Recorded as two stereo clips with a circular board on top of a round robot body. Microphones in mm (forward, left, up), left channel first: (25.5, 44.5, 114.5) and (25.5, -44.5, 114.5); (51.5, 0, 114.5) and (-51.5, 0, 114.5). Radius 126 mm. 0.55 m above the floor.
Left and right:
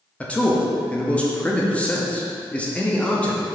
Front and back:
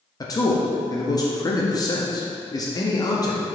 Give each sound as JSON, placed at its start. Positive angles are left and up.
{"t": 0.2, "sound": "a man speaking", "azimuth_deg": 20, "distance_m": 1.0}